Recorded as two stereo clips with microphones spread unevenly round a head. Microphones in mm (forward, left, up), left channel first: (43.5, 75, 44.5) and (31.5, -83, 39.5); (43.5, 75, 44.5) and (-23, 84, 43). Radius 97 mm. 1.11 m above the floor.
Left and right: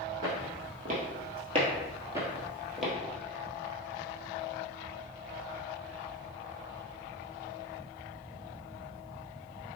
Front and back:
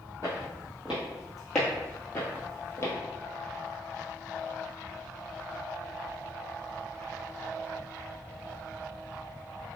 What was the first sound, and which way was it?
Footsteps, 120° right.